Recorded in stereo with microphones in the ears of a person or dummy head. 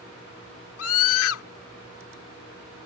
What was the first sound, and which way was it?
A scream, 80° left.